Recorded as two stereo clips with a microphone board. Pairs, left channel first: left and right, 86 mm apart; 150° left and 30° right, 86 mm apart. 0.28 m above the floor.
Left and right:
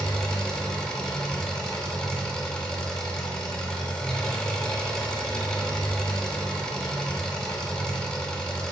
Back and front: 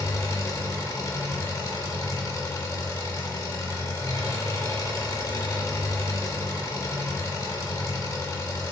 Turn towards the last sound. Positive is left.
turn(degrees=165)